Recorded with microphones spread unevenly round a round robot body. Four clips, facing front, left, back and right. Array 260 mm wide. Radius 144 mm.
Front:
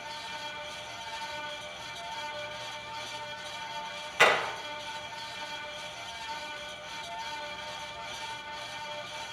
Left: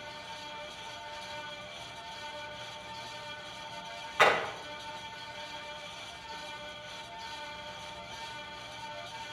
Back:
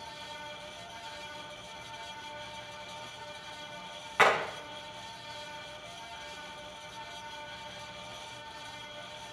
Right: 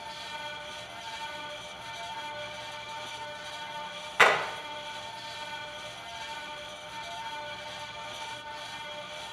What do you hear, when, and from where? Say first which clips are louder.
4.2 s hammering: right 2 dB, even; 170° right, 7 m